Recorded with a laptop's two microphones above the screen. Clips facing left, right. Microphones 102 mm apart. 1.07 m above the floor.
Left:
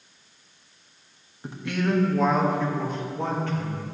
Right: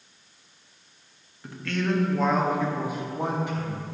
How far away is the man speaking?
About 1.8 m.